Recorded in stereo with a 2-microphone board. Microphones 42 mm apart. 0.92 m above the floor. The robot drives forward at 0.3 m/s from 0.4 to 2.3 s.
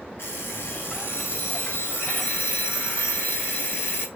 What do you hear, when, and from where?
0.2 s an alarm clock: 70° left (ahead or behind), 1.1 m; by 4.1 s 50° left (ahead or behind), 1.3 m